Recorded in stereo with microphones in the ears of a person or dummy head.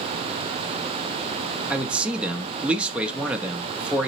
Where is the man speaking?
5° right (ahead or behind), 0.5 m.